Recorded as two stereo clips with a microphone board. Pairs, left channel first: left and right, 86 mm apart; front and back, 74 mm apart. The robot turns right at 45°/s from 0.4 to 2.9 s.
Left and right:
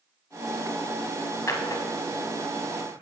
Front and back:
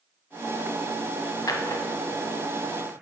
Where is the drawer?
35° left, 0.7 m; by 3.0 s 95° left, 0.7 m.